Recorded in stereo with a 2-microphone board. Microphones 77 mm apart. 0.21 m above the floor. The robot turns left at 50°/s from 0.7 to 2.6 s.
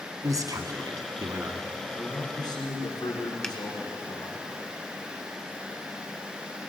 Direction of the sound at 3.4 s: 10° left (ahead or behind).